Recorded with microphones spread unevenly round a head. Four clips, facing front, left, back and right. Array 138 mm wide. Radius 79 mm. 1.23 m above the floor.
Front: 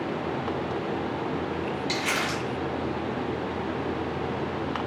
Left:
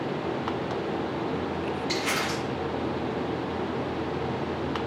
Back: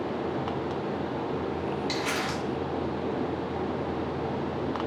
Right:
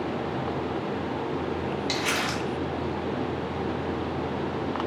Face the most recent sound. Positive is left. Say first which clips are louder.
# even, front 1 dB
turn(degrees=-80)